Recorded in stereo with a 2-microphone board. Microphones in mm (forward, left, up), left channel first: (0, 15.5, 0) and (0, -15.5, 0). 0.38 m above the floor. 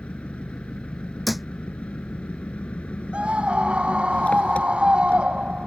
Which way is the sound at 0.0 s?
50° left (ahead or behind).